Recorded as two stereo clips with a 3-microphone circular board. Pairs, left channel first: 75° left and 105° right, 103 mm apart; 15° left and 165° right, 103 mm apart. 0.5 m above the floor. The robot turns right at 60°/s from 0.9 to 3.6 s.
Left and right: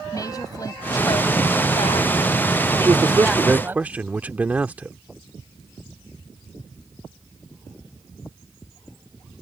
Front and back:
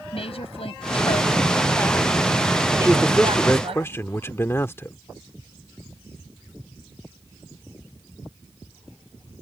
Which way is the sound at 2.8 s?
85° right.